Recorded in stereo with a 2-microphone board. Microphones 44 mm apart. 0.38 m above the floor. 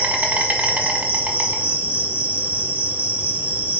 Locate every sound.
0.0 s an insect: 35° right (ahead or behind), 0.7 m